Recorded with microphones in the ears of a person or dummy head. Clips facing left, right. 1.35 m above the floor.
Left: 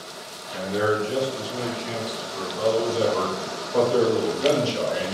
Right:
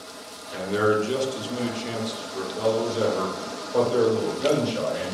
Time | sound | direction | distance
0.5 | a man speaking | 85° right | 1.2 m